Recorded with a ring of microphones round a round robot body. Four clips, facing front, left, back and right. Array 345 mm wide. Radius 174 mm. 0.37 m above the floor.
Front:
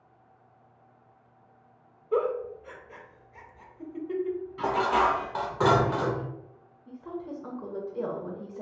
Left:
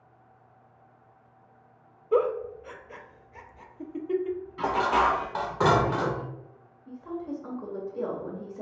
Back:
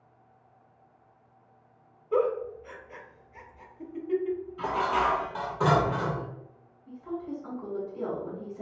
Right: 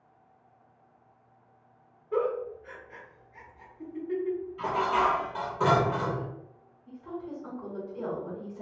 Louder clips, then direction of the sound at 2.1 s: Left 4 dB, back 1 dB; 90° left.